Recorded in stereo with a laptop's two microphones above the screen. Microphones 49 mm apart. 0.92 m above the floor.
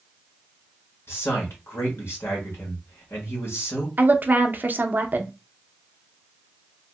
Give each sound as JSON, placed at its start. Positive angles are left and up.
{"t": 1.1, "sound": "a man speaking", "side_deg": 60, "distance_m": 1.3}
{"t": 4.0, "sound": "a woman speaking", "side_deg": -40, "distance_m": 0.5}